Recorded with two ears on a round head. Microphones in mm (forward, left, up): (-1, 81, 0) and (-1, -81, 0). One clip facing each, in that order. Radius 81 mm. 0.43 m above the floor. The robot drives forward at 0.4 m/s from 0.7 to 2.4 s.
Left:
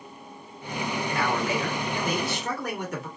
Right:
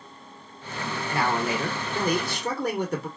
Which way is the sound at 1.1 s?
30° right (ahead or behind).